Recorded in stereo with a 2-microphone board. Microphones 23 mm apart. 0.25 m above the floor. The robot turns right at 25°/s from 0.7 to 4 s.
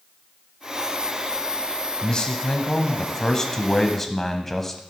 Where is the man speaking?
105° left, 1.2 m; by 4.8 s 155° left, 1.2 m.